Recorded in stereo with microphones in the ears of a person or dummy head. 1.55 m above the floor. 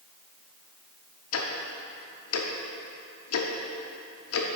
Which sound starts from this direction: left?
Ticking, at 1.3 s.